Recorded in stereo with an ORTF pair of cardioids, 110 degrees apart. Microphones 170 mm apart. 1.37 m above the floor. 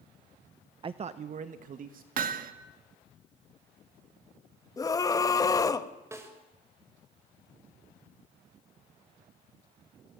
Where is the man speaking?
30° right, 1.0 m; by 2.1 s 55° right, 2.5 m.